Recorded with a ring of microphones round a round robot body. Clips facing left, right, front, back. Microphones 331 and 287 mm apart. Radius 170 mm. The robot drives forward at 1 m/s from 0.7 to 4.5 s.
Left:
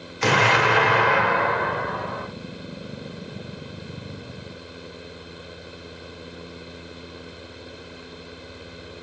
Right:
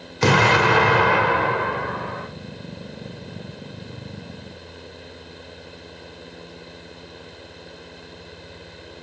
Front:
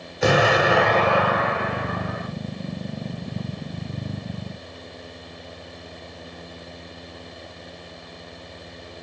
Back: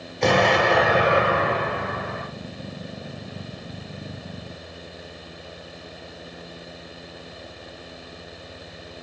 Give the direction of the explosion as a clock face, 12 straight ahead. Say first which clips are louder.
Right 3 dB, front 1 dB; 3 o'clock.